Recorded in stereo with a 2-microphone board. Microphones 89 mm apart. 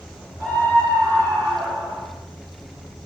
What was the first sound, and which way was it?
A scream, 20° left (ahead or behind).